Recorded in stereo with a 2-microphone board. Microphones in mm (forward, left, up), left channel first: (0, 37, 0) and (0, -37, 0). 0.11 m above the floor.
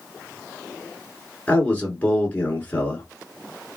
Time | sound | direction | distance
1.5 | a man speaking | 20° left (ahead or behind) | 1.3 m